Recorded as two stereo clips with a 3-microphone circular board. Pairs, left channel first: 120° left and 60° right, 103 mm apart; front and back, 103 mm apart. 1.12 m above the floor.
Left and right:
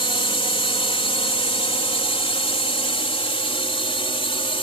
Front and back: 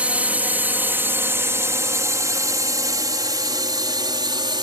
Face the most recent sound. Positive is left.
turn(degrees=140)